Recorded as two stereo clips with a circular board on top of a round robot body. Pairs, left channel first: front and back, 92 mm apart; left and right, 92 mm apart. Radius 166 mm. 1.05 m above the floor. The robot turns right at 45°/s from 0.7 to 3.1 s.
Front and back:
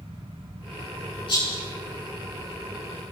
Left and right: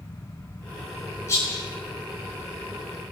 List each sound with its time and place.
1.3 s a rattle: 30° left, 9.5 m; by 1.7 s 45° left, 9.5 m